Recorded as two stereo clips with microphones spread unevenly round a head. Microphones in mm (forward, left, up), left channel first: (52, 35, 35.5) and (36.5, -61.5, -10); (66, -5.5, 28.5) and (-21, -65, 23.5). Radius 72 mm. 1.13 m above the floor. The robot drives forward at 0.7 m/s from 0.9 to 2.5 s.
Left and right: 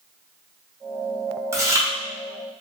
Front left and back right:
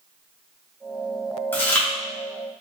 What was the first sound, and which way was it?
Chewing, 35° right.